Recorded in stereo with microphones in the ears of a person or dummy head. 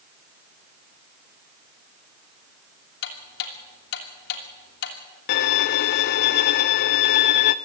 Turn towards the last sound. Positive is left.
turn(degrees=60)  # may be behind; listen again after turning